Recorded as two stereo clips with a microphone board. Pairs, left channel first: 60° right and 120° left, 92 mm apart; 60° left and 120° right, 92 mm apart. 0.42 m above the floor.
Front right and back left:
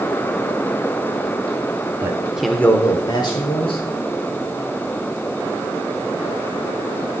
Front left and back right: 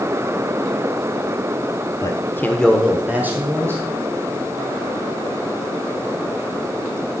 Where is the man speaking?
80° left, 1.2 m; by 3.8 s 60° right, 2 m.